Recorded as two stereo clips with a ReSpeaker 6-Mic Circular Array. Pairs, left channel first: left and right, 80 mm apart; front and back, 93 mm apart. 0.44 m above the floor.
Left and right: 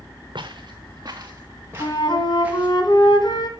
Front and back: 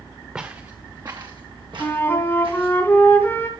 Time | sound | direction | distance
0.3 | footsteps | 105° right | 1.8 m
1.8 | a flute | 70° left | 2.5 m